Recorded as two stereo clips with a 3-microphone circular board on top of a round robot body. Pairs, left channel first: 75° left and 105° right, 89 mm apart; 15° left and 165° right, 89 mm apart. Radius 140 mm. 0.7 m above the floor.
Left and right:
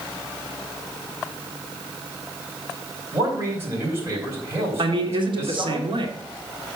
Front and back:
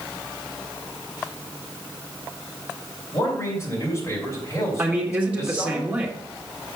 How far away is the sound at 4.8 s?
About 2 m.